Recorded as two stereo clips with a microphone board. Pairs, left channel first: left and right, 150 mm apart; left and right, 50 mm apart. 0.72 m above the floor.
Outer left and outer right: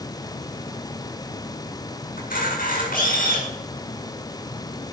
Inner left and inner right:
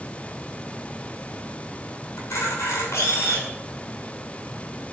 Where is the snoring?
I don't hear snoring.